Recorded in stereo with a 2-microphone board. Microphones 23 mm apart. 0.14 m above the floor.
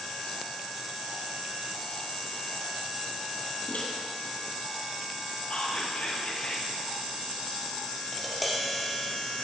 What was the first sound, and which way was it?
A microwave, 70° left (ahead or behind).